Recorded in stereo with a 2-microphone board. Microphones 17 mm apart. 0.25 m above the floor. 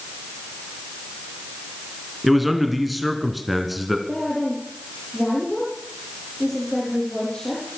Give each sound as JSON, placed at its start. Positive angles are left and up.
{"t": 2.2, "sound": "a man speaking", "side_deg": -10, "distance_m": 3.0}
{"t": 4.1, "sound": "a woman speaking", "side_deg": 5, "distance_m": 7.0}